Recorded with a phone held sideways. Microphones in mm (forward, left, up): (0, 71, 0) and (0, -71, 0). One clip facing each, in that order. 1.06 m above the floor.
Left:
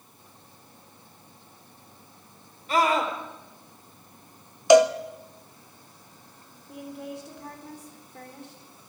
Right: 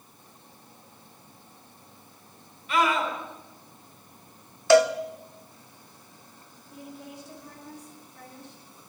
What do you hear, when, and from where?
2.7 s a scream: 40° left (ahead or behind), 3.5 m
4.7 s a cowbell: 15° left (ahead or behind), 0.7 m
6.7 s a woman speaking: 80° left, 3.5 m